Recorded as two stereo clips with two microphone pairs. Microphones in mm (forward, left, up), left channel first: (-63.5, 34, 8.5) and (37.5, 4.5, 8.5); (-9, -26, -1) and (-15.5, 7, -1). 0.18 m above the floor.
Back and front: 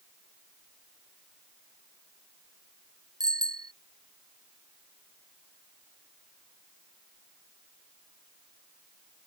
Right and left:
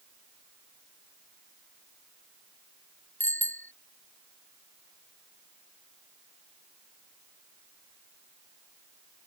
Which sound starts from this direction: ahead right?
A bicycle bell, at 3.2 s.